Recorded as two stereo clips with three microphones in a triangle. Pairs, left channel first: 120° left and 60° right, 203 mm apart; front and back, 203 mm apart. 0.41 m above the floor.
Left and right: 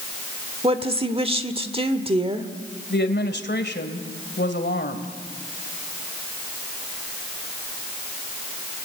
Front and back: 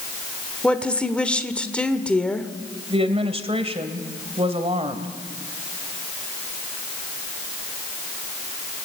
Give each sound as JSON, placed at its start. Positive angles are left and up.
{"t": 0.6, "sound": "a woman speaking", "azimuth_deg": -80, "distance_m": 1.4}
{"t": 2.9, "sound": "a woman speaking", "azimuth_deg": 125, "distance_m": 2.0}